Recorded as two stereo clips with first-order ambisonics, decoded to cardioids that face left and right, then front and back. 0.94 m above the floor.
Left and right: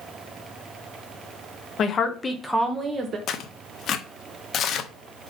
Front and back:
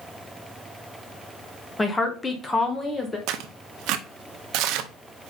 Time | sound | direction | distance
1.8 | a woman speaking | 75° left | 0.9 m
3.3 | tearing paper | 145° left | 0.6 m